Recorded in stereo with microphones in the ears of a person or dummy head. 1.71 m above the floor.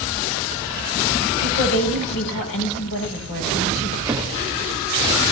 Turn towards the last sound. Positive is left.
turn(degrees=-10)  # may be behind; listen again after turning